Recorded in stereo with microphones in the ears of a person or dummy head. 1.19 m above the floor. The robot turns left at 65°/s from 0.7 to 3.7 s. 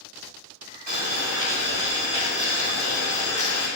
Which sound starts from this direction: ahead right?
Boiling, at 0.9 s.